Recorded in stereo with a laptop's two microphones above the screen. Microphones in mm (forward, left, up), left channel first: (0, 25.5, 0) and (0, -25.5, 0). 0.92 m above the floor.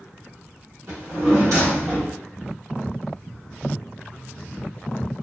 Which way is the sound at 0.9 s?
70° right (ahead or behind).